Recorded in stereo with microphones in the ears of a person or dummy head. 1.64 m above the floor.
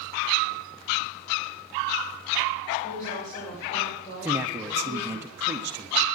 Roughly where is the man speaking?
Centre.